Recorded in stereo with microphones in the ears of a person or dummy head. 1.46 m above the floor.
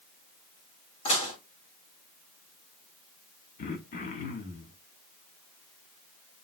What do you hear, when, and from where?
1.1 s dishes clattering: 30° left (ahead or behind), 1.6 m
3.6 s throat clearing: 40° left (ahead or behind), 0.9 m